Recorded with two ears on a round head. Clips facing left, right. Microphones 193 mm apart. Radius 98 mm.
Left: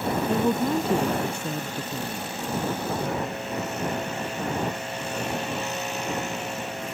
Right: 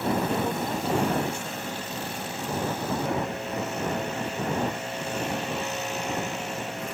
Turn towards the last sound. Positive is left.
turn(degrees=75)  # may be behind; listen again after turning